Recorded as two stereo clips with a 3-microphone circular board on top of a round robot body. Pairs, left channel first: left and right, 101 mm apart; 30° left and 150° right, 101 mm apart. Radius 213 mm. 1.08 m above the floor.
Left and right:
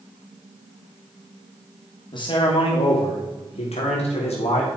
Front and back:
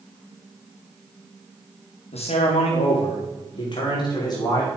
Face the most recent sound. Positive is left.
turn(degrees=85)